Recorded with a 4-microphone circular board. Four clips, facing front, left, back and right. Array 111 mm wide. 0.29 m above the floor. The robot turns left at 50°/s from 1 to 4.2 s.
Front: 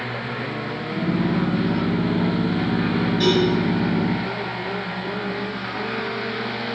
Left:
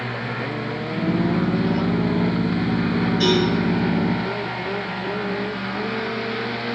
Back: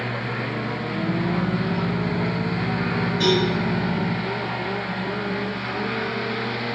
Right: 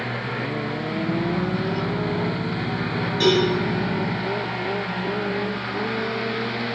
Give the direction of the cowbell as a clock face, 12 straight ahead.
3 o'clock.